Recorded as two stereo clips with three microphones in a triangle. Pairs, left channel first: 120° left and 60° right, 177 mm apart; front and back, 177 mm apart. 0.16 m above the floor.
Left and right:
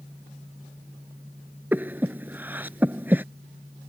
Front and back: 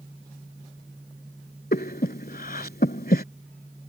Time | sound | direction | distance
1.7 | breathing | 15° left | ?